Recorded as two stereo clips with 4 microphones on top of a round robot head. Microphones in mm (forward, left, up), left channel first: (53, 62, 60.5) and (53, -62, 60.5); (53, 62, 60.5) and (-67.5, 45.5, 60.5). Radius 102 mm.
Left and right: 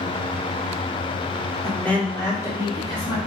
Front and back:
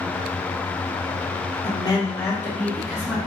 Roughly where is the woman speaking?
Ahead.